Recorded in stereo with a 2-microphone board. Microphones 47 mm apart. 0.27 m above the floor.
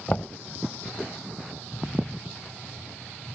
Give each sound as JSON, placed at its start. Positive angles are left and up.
{"t": 0.1, "sound": "knocking", "side_deg": 30}